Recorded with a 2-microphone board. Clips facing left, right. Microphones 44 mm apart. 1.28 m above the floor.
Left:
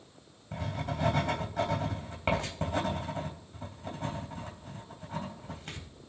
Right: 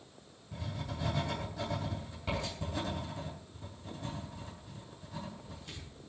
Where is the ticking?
I don't hear ticking.